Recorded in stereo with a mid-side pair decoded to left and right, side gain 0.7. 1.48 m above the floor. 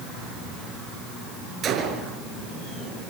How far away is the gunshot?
About 6 m.